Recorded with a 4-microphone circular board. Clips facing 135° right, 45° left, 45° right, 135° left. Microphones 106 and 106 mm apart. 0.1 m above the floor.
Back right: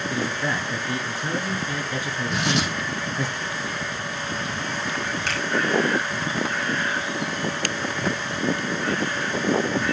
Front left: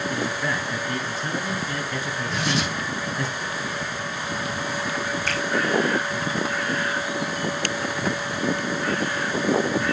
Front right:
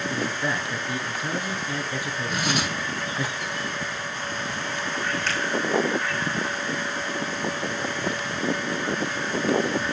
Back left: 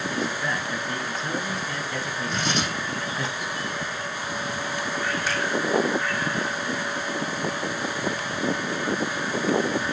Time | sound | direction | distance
0.1 | a man speaking | 100° right | 1.2 m
2.3 | tearing paper | 130° right | 5 m
5.3 | a finger snap | 145° right | 5.5 m